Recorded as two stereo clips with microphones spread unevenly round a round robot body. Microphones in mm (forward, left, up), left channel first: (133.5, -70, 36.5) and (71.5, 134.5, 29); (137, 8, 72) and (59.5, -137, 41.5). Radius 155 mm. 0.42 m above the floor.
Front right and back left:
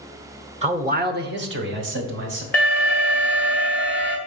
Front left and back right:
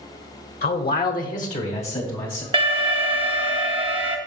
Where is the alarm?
155° right, 0.8 m.